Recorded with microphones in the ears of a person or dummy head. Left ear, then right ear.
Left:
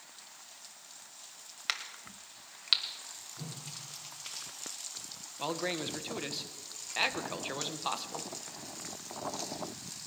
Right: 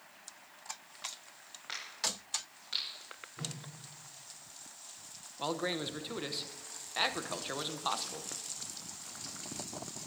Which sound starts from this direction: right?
A whoosh, at 3.4 s.